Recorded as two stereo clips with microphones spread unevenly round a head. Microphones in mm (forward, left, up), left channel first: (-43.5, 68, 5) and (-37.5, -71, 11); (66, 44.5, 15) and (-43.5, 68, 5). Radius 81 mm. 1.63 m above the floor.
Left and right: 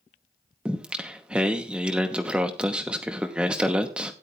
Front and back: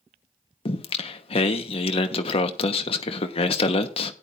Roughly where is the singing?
Ahead.